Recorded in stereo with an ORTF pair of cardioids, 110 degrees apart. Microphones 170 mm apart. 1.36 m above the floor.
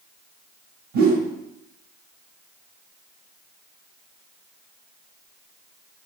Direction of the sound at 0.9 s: 65° right.